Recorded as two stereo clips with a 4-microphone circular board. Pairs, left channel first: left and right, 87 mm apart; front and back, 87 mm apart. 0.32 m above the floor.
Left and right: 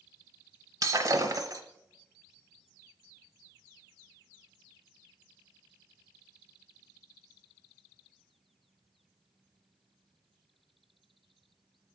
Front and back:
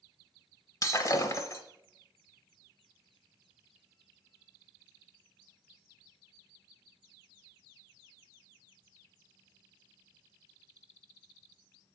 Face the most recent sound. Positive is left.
turn(degrees=-45)